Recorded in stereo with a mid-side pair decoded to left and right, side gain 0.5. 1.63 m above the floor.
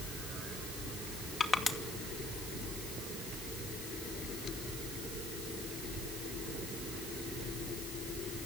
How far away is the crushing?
About 2.5 m.